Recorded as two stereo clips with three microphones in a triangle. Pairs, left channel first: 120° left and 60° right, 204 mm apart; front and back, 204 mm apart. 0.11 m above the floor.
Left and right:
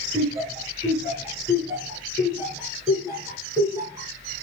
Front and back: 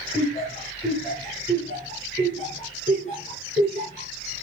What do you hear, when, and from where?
0.1 s laughter: straight ahead, 1.2 m